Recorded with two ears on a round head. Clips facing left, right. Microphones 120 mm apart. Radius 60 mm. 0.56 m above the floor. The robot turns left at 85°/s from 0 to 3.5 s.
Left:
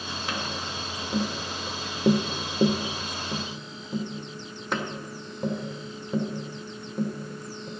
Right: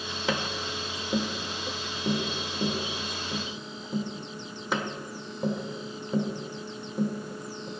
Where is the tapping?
65° right (ahead or behind), 1.3 m; by 7.7 s centre (ahead or behind), 1.3 m.